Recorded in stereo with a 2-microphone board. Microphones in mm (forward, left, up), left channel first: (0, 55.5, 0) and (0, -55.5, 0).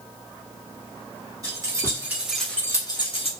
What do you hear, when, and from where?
1.4 s keys jangling: 35° right (ahead or behind), 1.3 m; by 3.3 s 60° left (ahead or behind), 0.8 m